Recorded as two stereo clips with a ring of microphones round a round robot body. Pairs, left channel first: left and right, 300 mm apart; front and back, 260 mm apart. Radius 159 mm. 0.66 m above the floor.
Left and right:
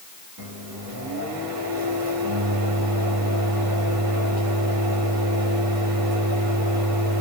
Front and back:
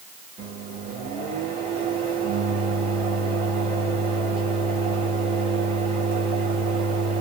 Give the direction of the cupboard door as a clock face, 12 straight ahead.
No cupboard door in this recording.